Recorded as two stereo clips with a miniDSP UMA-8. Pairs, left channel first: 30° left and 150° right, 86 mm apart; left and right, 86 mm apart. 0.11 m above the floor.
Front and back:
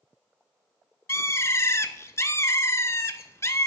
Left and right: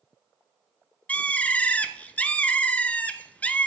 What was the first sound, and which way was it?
A bird, 30° left.